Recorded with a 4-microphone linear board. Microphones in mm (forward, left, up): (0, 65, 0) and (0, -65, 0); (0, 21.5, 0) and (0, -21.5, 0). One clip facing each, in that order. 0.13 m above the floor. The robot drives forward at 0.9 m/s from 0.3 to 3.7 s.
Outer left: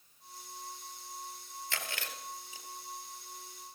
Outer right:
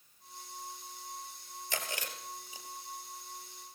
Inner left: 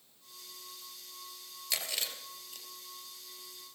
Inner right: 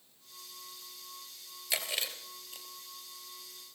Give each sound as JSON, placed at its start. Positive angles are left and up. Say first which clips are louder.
{"t": 1.7, "sound": "chewing", "louder": "outer right 3 dB, inner right 2 dB", "side_deg": -15, "distance_m": 3.0}